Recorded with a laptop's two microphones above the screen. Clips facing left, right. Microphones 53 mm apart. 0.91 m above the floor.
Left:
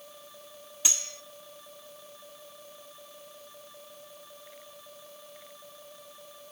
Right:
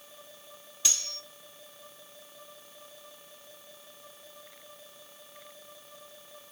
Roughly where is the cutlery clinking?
Centre.